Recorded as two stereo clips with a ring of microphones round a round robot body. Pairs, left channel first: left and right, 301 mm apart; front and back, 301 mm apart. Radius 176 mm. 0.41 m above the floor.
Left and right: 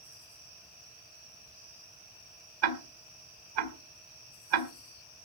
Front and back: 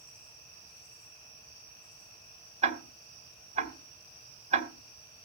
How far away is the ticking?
About 3 m.